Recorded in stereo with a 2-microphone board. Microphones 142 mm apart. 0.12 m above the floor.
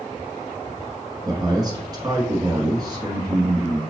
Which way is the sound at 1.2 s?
30° right (ahead or behind).